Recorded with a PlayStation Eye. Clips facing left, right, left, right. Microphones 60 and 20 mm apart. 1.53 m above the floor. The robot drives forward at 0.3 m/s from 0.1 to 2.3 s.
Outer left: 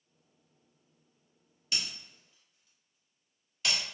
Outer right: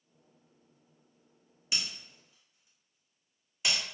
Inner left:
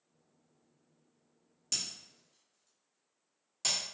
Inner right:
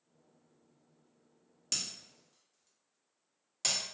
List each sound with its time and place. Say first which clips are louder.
1.7 s breaking glass: even, even; 20° right (ahead or behind), 1.1 m; by 3.8 s 15° right (ahead or behind), 1.2 m